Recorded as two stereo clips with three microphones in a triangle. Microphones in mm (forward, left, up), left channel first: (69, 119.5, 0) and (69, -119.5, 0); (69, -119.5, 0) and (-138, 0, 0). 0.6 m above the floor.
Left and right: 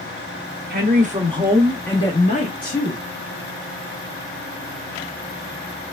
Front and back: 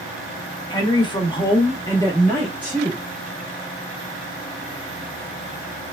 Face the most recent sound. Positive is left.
turn(degrees=55)